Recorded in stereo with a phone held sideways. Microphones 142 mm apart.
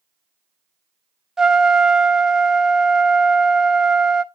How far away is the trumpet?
About 0.6 m.